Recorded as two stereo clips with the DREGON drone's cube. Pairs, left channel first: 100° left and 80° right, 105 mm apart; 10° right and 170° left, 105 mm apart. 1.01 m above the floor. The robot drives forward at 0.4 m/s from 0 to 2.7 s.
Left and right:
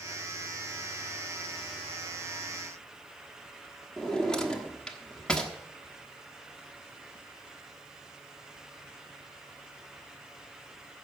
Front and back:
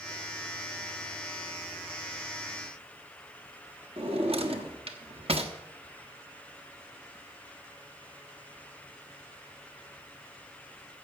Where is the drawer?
175° right, 1.1 m.